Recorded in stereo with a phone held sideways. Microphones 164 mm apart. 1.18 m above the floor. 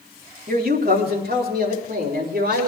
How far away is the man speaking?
About 2 m.